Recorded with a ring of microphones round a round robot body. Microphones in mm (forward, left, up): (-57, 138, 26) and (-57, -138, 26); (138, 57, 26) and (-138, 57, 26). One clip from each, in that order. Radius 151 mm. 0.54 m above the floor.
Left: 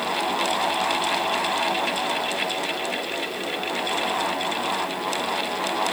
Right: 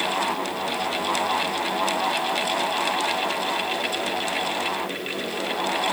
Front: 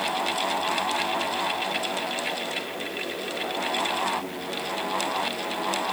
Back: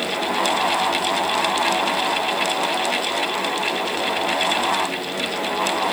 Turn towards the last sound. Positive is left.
No sound to turn to.